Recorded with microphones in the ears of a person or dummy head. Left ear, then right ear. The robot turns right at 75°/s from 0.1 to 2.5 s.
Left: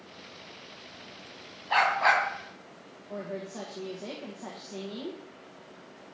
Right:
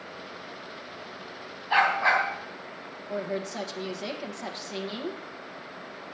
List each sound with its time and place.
1.7 s a dog barking: 5° right, 3.5 m; by 2.2 s 35° left, 3.5 m
3.1 s a woman speaking: 75° right (ahead or behind), 1.5 m